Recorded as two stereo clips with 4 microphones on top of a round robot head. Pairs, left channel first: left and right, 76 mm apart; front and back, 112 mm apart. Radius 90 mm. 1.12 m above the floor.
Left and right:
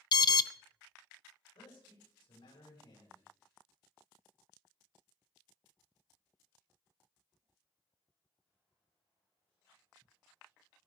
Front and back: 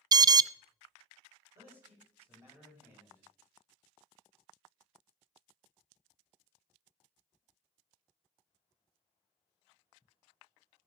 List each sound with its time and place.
0.1 s an alarm: 125° left, 0.5 m
1.6 s a man speaking: 120° left, 8 m